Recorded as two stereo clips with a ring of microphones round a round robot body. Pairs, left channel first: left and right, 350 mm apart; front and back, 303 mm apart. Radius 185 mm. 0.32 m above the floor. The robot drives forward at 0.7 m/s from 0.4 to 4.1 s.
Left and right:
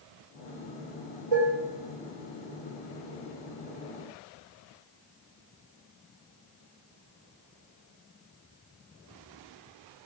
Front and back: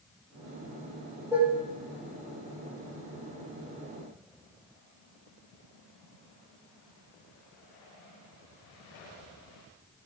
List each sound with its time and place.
1.3 s dishes clattering: 100° right, 6 m; by 1.6 s 105° right, 6 m